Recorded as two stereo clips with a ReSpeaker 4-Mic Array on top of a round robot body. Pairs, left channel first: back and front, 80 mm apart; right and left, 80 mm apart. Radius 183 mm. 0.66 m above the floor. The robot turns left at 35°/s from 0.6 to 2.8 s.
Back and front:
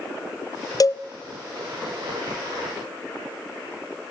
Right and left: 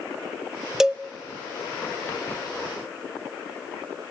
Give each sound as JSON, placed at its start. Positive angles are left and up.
{"t": 0.8, "sound": "a cowbell", "azimuth_deg": 170, "distance_m": 0.7}